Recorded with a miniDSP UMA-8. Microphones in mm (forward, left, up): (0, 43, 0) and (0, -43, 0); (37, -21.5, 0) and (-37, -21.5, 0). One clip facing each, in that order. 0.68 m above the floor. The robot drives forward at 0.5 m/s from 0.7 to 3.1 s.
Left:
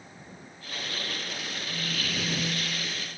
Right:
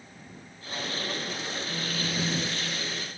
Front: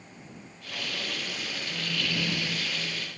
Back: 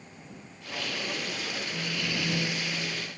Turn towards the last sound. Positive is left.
turn(degrees=-125)